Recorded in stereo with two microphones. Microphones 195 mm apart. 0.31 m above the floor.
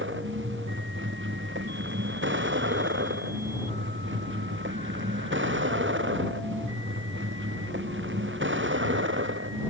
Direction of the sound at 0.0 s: 85° right.